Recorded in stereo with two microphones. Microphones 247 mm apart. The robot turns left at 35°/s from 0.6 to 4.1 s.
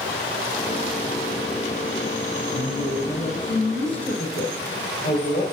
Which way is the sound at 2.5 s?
140° right.